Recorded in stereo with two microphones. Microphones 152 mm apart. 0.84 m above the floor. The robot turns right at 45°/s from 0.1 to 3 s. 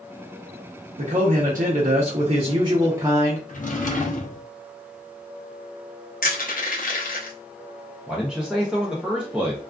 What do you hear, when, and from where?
1.0 s a man speaking: 110° right, 0.7 m; by 3.4 s 20° right, 0.7 m
3.5 s a drawer: 60° left (ahead or behind), 0.6 m
6.2 s crushing: 70° left (ahead or behind), 0.7 m
8.1 s a man speaking: 5° right (ahead or behind), 0.5 m